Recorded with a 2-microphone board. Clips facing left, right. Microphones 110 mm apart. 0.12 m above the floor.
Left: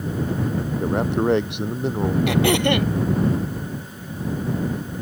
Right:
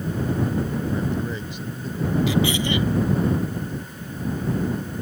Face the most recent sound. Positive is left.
turn(degrees=65)  # may be behind; listen again after turning